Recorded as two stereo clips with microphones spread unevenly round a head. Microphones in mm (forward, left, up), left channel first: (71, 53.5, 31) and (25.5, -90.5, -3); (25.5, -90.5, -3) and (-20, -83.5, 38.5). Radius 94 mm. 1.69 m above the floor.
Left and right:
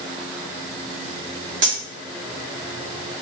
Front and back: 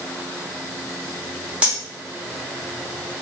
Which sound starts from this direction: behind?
Cutlery clinking, at 1.6 s.